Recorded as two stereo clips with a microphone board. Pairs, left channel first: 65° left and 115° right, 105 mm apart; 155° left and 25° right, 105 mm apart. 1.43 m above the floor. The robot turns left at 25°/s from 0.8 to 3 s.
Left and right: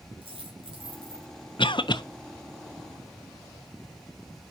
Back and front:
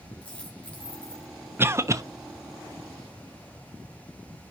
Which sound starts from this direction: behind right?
A dropped coin, at 0.2 s.